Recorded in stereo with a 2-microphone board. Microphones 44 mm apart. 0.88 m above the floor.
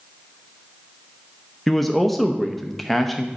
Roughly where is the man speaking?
Centre.